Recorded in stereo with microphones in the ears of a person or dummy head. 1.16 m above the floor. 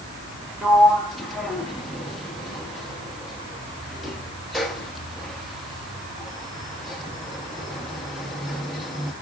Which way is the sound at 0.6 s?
Centre (ahead or behind).